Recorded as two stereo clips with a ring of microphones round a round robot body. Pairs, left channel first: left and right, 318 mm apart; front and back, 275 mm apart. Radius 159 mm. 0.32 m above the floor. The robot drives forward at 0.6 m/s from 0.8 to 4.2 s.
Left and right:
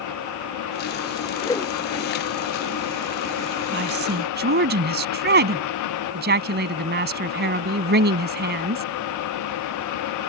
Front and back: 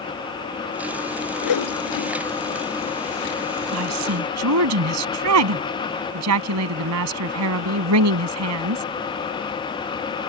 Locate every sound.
1.4 s a whoosh: 10° left; by 2.1 s 20° left
3.7 s a woman speaking: 145° right